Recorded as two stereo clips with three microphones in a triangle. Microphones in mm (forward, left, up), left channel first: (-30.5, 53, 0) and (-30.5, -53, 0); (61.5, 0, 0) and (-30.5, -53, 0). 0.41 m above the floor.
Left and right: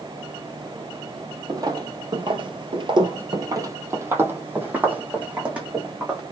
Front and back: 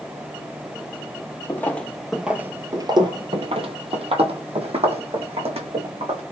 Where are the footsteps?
40° right, 0.8 m; by 6.2 s 170° right, 2.0 m.